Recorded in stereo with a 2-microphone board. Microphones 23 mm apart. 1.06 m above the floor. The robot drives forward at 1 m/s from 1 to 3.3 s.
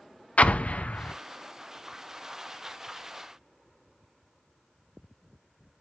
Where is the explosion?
80° left, 0.5 m; by 1.1 s 85° left, 0.5 m.